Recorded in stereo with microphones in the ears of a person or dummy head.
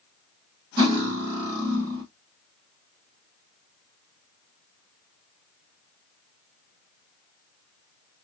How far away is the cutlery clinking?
About 1.4 m.